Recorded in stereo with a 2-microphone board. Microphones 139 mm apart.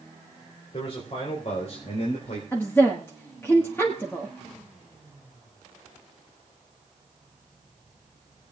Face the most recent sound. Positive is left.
turn(degrees=20)  # may be behind; listen again after turning